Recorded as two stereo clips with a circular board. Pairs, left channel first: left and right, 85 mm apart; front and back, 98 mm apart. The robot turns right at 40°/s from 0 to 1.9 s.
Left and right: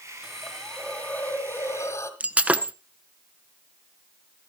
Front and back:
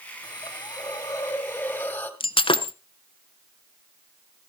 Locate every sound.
0.2 s a hiss: 5° right, 1.9 m; by 2.1 s 60° left, 1.9 m
2.2 s breaking glass: 15° right, 0.7 m